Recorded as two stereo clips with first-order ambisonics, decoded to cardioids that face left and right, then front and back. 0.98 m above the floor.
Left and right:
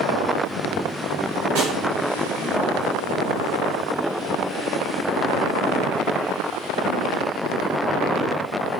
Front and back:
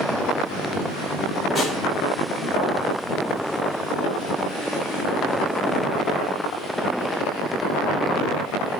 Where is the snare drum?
90° right, 1.0 m.